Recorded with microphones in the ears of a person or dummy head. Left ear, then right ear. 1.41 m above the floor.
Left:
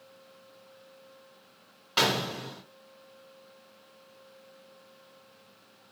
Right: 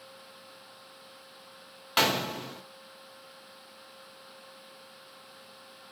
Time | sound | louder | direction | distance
2.0 | a gunshot | even | 30° right (ahead or behind) | 0.8 m